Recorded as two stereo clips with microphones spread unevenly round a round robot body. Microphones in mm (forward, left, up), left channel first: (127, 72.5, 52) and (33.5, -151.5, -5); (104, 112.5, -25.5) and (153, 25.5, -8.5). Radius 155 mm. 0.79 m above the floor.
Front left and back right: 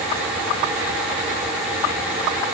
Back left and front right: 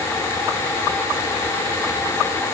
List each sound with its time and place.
Only background noise.